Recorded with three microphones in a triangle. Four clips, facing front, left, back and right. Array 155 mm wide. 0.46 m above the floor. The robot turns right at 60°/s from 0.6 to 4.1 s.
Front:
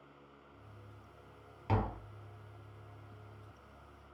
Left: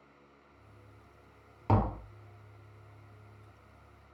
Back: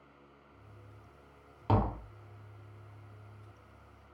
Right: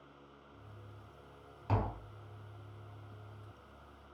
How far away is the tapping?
About 0.6 m.